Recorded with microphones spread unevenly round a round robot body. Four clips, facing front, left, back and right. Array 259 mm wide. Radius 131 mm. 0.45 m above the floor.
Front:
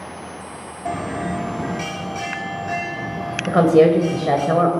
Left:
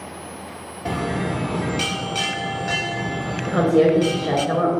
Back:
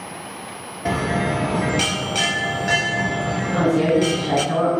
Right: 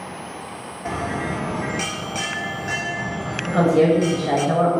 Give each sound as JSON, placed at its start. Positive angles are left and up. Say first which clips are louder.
{"t": 0.8, "sound": "a bell", "louder": "left 2 dB, back 3 dB", "azimuth_deg": 155, "distance_m": 1.0}
{"t": 3.5, "sound": "a woman speaking", "louder": "even, front 6 dB", "azimuth_deg": 10, "distance_m": 1.8}